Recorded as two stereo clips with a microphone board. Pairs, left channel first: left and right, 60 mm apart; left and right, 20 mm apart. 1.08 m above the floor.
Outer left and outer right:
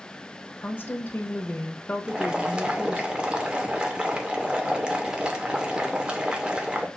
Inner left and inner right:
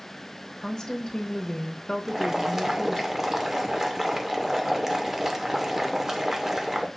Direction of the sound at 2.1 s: 15° right (ahead or behind).